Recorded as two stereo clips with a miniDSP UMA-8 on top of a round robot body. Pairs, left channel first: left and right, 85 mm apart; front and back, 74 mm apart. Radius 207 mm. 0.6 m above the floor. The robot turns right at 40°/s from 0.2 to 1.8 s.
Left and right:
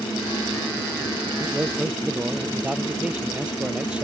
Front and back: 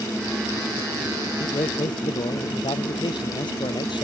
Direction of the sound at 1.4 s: 30° right.